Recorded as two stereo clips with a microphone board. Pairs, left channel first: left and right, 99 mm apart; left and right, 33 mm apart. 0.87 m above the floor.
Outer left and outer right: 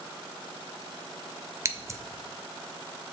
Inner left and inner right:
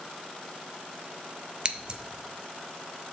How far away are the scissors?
About 0.6 m.